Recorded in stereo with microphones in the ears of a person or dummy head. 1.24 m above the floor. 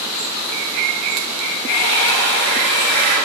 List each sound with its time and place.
1.7 s a hair dryer: 55° right (ahead or behind), 2 m